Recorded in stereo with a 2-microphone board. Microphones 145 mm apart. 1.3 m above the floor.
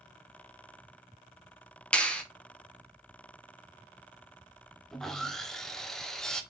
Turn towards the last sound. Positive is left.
turn(degrees=5)  # may be behind; listen again after turning